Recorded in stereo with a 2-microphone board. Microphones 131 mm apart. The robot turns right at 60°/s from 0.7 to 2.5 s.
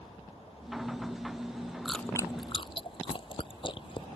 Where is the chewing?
Centre (ahead or behind); by 4.1 s 40° left (ahead or behind).